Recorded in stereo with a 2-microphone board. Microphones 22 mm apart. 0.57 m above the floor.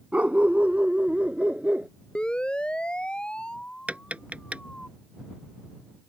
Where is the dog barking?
80° right; by 1.9 s 85° right.